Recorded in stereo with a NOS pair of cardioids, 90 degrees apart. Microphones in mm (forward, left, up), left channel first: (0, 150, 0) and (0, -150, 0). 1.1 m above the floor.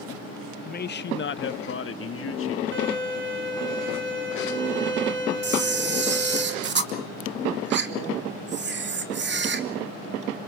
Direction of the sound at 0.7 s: 30° left.